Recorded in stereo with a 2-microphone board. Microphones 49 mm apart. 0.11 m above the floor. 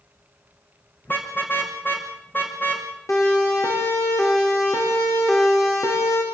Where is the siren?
85° left, 9 m; by 6.2 s 80° left, 6.5 m.